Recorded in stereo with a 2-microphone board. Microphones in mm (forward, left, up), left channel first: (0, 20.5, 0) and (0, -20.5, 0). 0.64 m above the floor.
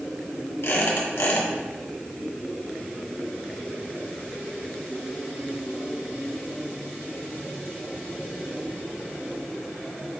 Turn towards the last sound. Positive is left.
turn(degrees=80)